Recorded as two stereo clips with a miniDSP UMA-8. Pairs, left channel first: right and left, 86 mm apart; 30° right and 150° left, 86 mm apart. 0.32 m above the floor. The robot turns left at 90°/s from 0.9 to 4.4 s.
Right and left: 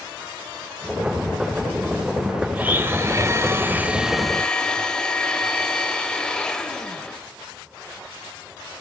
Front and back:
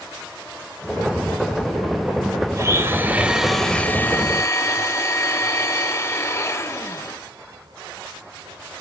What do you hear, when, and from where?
2.5 s a blender: 150° left, 1.2 m; by 7.2 s 20° right, 1.2 m